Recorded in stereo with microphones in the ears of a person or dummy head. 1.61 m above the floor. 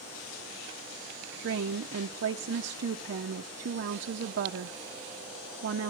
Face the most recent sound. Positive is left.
turn(degrees=-50)  # may be behind; listen again after turning